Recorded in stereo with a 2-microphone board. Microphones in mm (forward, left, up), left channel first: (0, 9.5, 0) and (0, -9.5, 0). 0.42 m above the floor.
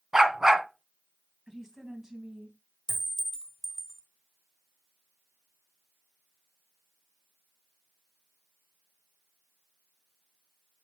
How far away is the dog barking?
About 1.7 m.